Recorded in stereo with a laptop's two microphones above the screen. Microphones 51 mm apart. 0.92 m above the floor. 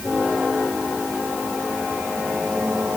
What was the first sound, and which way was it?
Only background noise.